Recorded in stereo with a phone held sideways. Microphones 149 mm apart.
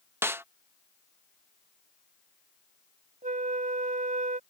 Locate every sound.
0.2 s a snare drum: 15° right (ahead or behind)
3.2 s a flute: 60° right (ahead or behind)